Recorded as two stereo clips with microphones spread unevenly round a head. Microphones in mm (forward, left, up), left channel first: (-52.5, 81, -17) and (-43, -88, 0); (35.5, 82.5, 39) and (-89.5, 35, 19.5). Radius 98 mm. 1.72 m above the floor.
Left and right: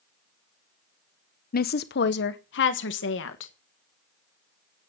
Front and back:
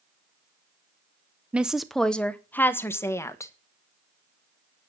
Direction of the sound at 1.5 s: 115° left.